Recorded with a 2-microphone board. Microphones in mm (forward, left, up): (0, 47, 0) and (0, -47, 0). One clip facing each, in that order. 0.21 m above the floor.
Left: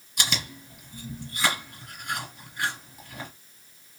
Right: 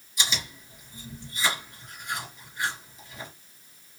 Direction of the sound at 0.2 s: 65° left (ahead or behind).